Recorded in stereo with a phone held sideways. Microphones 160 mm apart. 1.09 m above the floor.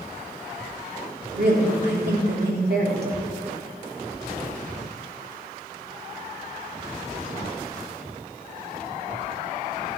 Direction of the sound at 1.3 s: 80° right.